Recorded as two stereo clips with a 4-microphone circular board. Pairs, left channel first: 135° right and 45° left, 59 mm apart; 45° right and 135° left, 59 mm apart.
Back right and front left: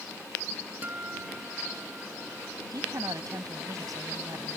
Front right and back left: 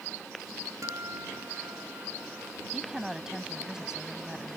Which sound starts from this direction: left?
A guitar, at 0.8 s.